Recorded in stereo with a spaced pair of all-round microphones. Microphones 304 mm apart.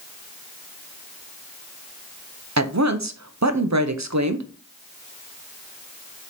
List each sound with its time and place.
2.6 s a woman speaking: 60° right (ahead or behind), 0.8 m